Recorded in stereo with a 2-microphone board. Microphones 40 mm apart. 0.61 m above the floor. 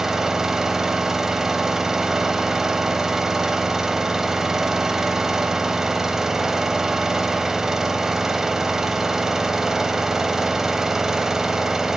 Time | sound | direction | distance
0.0 | an engine running | 10° right (ahead or behind) | 0.7 m